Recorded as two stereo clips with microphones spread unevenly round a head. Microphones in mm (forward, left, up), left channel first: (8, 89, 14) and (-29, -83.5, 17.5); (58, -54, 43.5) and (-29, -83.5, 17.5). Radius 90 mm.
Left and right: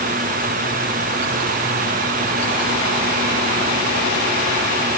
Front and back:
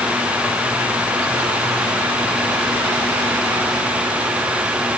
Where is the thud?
I don't hear a thud.